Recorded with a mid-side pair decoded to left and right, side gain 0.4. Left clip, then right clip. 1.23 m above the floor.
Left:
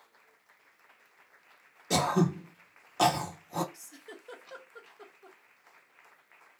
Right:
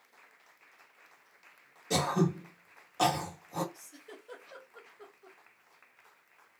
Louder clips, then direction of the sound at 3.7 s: Left 2 dB; 60° left.